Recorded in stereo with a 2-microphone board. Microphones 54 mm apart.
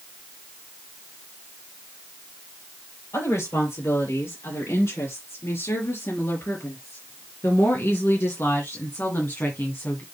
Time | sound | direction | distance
3.1 | a woman speaking | 65° left (ahead or behind) | 5.5 m